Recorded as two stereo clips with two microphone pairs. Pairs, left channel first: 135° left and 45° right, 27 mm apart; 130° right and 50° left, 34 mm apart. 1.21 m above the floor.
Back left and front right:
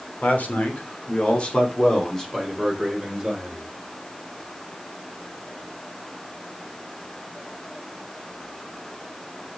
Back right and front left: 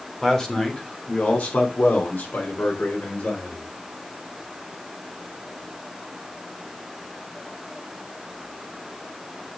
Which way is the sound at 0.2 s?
155° left.